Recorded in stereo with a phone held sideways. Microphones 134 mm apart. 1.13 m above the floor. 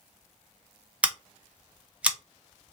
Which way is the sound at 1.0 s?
10° right (ahead or behind).